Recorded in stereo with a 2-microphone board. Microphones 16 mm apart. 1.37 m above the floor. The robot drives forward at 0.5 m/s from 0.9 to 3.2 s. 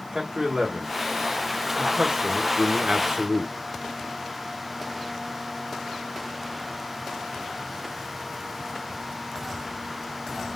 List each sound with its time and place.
0.1 s a man speaking: 35° right (ahead or behind), 1.6 m; by 3.5 s 65° right (ahead or behind), 1.0 m